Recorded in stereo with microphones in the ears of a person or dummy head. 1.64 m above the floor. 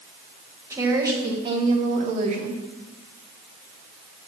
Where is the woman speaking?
15° right (ahead or behind), 1.8 m; by 2.6 s 55° right (ahead or behind), 1.3 m.